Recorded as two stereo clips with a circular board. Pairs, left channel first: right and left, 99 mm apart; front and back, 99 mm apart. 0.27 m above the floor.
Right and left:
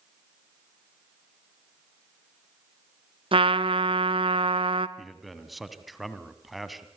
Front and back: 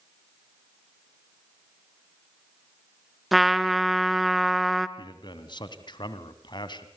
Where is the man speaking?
Straight ahead, 1.9 m.